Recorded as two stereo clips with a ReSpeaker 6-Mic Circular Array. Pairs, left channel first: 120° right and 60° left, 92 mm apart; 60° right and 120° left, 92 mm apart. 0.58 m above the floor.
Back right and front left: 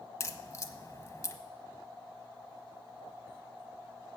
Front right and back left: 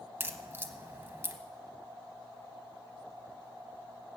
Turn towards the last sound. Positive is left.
turn(degrees=180)